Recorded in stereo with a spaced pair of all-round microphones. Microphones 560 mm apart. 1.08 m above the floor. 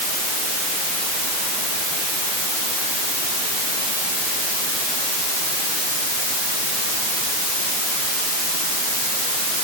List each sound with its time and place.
Only background noise.